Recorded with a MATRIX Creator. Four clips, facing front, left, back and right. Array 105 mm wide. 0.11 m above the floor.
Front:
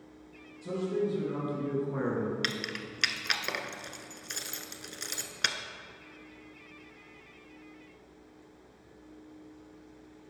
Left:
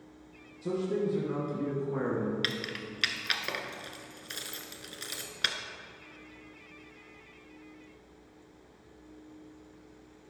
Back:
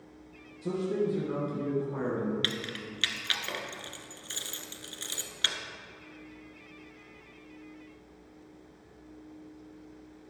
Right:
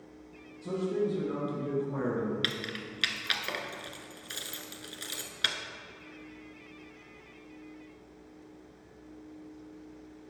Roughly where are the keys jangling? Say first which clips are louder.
Even, even; ahead.